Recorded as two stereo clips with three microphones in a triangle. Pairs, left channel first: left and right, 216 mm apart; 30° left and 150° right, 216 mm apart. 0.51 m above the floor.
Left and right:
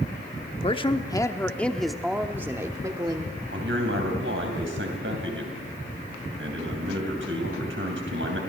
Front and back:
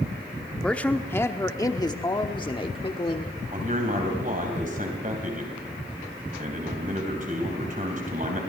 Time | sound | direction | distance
0.6 | a man speaking | 110° left | 1.0 m
3.5 | a man speaking | 100° right | 3.5 m